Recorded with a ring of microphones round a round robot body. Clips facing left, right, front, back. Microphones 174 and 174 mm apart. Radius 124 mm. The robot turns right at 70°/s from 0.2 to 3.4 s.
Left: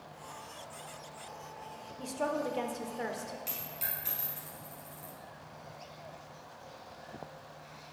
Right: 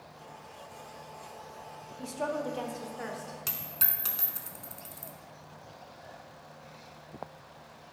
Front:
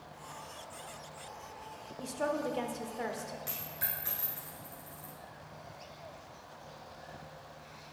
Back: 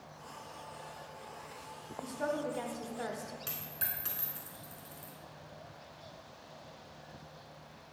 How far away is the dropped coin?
About 0.8 m.